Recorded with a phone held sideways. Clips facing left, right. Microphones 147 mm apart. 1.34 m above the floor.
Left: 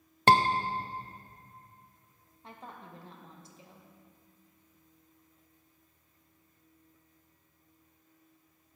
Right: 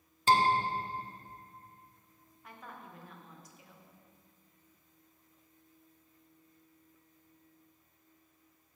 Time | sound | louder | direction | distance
0.3 | a scream | left 3 dB | 65° left (ahead or behind) | 0.7 m
2.4 | a woman speaking | left 2 dB | 25° left (ahead or behind) | 1.2 m